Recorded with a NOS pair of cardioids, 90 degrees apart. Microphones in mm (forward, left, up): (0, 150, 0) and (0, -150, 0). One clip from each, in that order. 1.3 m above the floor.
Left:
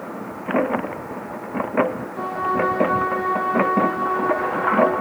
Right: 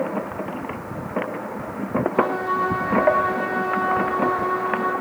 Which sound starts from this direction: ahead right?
A trumpet, at 2.1 s.